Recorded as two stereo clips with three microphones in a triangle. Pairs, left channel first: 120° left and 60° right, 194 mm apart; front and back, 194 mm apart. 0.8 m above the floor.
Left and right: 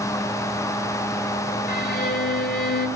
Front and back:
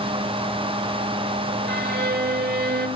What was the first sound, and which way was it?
A violin, 150° left.